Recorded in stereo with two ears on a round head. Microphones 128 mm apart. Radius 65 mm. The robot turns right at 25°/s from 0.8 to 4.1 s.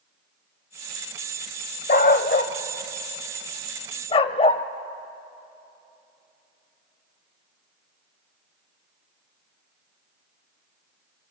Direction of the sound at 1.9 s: 60° left (ahead or behind).